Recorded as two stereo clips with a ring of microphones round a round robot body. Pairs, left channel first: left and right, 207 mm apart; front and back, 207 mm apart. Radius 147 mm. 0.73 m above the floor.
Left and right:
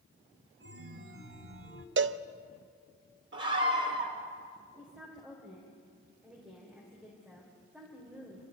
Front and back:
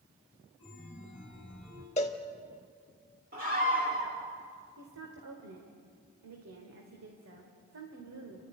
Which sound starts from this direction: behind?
A woman speaking, at 4.8 s.